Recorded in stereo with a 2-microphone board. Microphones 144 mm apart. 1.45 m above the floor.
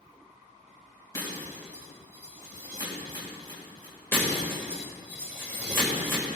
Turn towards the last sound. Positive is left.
turn(degrees=15)  # may be behind; listen again after turning